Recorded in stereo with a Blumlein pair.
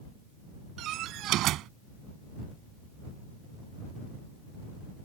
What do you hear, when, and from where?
0.8 s a door slam: 35° right